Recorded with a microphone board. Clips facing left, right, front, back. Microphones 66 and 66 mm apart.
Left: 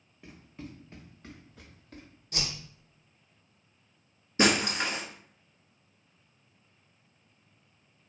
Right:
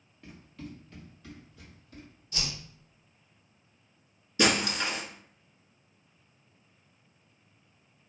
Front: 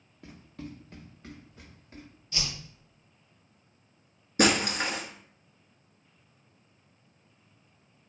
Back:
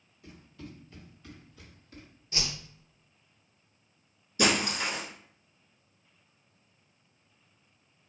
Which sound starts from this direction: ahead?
Running footsteps, at 0.2 s.